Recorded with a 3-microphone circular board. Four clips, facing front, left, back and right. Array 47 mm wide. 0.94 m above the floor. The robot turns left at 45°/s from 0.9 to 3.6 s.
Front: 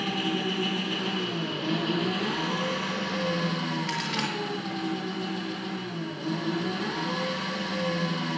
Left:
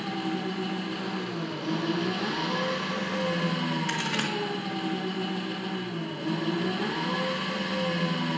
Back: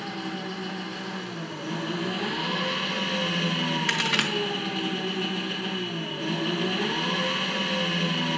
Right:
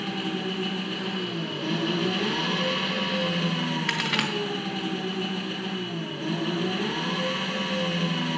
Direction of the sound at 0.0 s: 30° right.